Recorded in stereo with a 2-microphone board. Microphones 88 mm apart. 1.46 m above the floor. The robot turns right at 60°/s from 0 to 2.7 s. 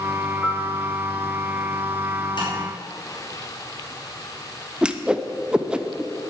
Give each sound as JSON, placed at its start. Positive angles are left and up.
{"t": 0.4, "sound": "a piano", "side_deg": 15, "distance_m": 1.3}
{"t": 2.4, "sound": "tapping", "side_deg": 60, "distance_m": 5.5}
{"t": 4.8, "sound": "a whoosh", "side_deg": -10, "distance_m": 0.7}